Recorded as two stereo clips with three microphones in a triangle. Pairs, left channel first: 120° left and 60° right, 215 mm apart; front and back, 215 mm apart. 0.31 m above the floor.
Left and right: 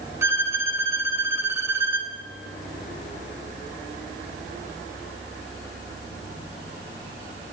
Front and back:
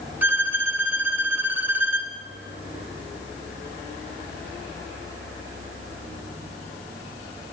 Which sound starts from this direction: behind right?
A violin, at 0.2 s.